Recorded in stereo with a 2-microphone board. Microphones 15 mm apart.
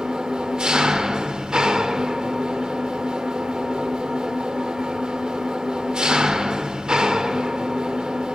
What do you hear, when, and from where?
0.0 s an engine running: 75° right (ahead or behind), 0.9 m